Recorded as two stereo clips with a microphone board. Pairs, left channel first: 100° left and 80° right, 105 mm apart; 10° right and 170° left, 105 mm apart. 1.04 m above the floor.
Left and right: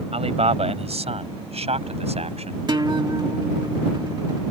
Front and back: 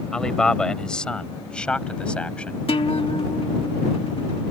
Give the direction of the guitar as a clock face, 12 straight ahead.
1 o'clock.